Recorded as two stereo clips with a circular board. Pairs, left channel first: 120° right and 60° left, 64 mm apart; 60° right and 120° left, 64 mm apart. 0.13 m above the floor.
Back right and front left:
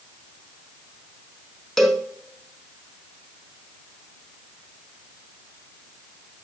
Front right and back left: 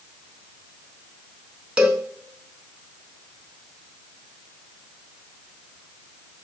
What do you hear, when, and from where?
1.8 s a cowbell: 165° left, 0.8 m